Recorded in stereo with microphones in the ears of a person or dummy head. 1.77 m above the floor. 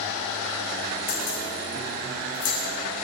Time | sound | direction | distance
1.1 | keys jangling | 60° left (ahead or behind) | 7 m